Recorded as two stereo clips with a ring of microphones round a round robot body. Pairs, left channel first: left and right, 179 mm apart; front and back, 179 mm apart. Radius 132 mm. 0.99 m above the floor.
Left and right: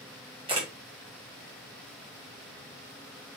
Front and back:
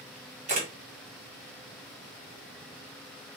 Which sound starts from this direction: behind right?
A camera shutter, at 0.5 s.